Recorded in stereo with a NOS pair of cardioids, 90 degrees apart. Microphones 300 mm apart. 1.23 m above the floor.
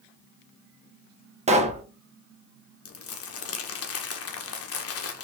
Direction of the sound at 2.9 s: 55° left.